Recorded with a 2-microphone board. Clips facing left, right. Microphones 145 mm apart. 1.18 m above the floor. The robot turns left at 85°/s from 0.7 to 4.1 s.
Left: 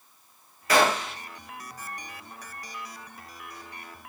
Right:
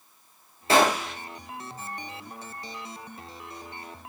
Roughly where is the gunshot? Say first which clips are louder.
Right 1 dB; behind right.